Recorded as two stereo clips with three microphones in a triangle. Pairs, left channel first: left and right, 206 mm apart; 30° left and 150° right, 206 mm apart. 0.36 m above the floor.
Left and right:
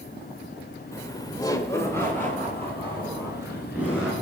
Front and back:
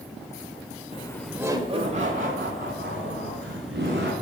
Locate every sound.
0.9 s laughter: 30° left, 0.9 m; by 4.1 s 175° left, 4 m